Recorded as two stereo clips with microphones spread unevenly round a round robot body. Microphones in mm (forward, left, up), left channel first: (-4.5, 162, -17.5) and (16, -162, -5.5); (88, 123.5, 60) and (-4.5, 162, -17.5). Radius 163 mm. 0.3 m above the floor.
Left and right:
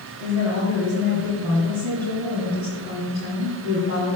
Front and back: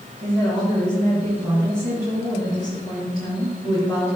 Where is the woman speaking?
150° right, 3 m.